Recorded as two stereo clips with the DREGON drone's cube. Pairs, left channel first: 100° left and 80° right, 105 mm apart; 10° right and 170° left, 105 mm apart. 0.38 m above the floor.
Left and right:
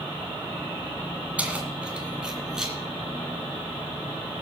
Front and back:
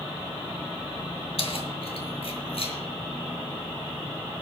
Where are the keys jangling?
Straight ahead, 2 m; by 2.7 s 5° left, 3 m.